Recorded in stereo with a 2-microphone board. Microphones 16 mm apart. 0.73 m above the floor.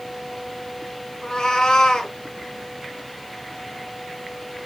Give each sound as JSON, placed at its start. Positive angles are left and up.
{"t": 1.2, "sound": "a cat meowing", "side_deg": 60, "distance_m": 0.8}